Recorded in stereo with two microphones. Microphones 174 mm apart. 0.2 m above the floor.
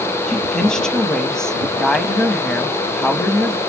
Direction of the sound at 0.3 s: 5° left (ahead or behind).